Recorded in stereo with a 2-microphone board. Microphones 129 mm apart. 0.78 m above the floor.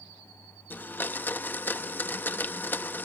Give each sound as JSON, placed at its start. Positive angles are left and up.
{"t": 0.7, "sound": "a blender", "side_deg": 15, "distance_m": 0.9}